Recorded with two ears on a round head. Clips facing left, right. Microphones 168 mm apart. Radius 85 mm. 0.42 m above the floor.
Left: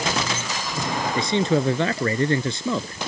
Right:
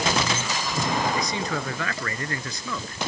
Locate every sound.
1.1 s a man speaking: 25° left (ahead or behind)